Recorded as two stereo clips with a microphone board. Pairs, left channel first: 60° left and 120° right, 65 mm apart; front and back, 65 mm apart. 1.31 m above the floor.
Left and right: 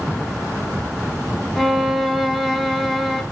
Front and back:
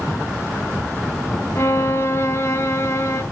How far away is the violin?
About 1.3 m.